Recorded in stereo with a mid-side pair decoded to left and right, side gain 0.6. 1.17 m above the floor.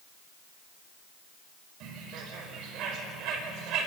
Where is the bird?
65° right, 5 m.